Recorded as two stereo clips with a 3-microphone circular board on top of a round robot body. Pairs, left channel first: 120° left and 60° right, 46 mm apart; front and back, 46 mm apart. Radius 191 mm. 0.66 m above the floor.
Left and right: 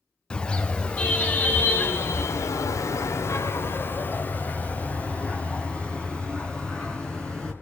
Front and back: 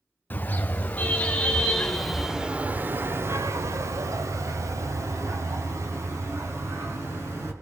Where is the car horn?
50° left, 2.5 m; by 7.5 s 165° right, 5 m.